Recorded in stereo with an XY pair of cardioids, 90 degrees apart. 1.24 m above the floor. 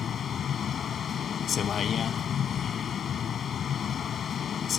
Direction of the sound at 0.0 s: 60° left.